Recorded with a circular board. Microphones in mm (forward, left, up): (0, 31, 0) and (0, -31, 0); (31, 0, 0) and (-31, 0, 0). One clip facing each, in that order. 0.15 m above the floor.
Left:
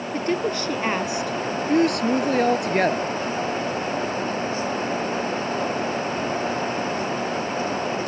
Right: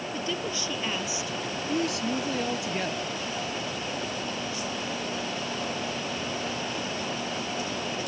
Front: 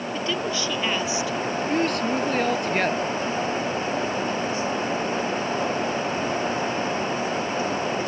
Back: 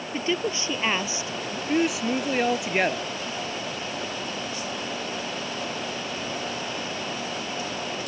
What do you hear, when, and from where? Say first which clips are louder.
0.1 s a woman speaking: left 10 dB, back 1 dB; 115° left; by 1.6 s 120° left
1.7 s a woman speaking: left 9 dB, back 1 dB; 100° left